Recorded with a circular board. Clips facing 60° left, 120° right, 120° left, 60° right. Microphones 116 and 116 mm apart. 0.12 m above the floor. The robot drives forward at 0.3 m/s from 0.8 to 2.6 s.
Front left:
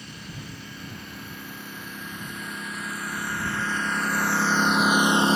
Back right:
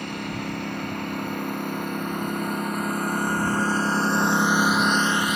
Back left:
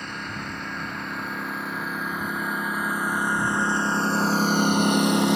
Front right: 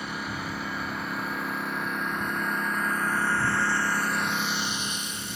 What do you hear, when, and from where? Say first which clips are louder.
0.0 s a lawn mower: back right 11 dB, front right 1 dB; 145° right; by 5.4 s 115° left